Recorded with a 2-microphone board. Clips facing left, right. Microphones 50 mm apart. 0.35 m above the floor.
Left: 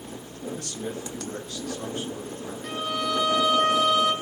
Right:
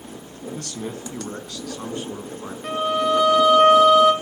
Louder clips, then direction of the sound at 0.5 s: Right 3 dB; 65° right (ahead or behind).